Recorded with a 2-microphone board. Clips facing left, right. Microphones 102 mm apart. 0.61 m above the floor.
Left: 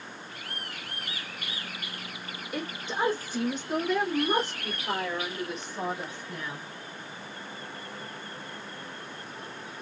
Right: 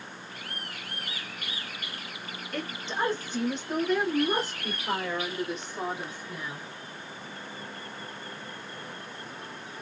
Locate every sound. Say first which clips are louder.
2.5 s a woman speaking: left 1 dB; 15° left (ahead or behind), 1.1 m; by 6.7 s 5° right (ahead or behind), 3 m